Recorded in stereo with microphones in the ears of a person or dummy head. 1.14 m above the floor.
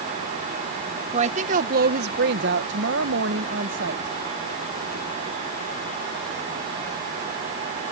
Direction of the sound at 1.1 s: 35° right (ahead or behind).